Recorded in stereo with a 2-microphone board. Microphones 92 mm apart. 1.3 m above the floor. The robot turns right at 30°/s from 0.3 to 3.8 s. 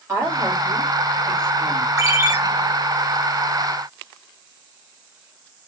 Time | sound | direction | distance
0.1 | a woman speaking | 145° right | 2.5 m
2.0 | a ringtone | 35° right (ahead or behind) | 0.9 m